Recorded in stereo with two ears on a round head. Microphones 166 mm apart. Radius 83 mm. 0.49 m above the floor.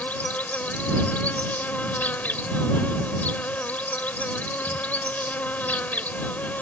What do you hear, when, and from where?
0.0 s an insect: 10° left (ahead or behind)